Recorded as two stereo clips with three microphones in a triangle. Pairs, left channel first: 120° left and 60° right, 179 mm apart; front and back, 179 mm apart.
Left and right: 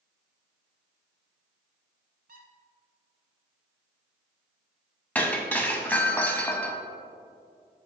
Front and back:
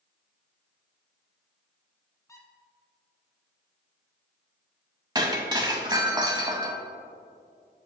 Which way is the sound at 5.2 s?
175° right.